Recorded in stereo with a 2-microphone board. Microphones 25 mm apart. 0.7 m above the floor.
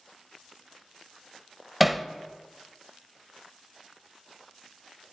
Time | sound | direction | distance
1.8 | hammering | 5° right (ahead or behind) | 0.6 m